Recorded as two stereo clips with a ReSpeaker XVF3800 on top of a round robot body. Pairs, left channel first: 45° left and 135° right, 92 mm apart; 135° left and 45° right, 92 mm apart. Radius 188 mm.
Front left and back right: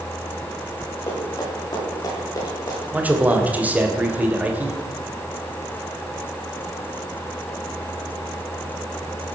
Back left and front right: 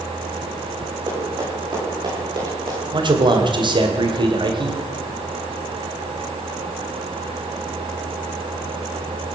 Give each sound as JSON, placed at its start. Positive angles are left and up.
{"t": 1.1, "sound": "running footsteps", "azimuth_deg": 0, "distance_m": 9.0}
{"t": 2.9, "sound": "a man speaking", "azimuth_deg": -65, "distance_m": 2.5}